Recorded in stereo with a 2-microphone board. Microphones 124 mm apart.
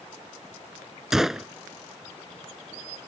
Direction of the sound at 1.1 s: 5° right (ahead or behind).